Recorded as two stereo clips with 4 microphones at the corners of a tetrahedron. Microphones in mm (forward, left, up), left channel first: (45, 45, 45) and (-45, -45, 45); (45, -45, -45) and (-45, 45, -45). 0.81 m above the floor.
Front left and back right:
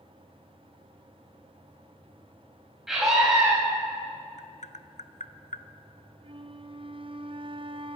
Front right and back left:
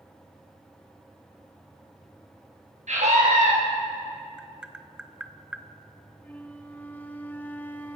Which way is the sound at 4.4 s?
55° left.